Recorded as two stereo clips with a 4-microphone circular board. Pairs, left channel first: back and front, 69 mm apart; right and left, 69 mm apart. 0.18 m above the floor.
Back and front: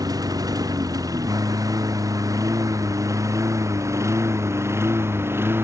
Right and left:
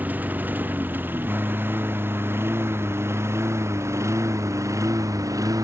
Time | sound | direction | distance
0.0 | a lawn mower | 25° left | ?